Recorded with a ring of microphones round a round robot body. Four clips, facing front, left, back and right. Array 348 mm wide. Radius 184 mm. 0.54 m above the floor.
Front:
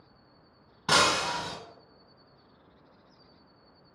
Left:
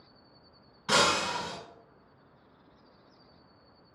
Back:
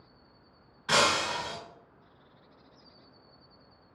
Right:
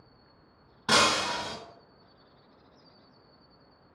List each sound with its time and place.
0.9 s breaking glass: 35° right, 0.8 m